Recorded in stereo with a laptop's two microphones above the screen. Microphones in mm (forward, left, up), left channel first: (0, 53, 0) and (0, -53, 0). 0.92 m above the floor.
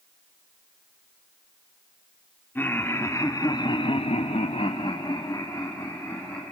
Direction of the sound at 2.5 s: 20° left (ahead or behind).